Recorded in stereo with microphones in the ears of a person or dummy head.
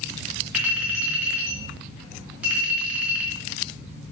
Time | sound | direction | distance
0.5 | a clink | centre (ahead or behind) | 2.5 m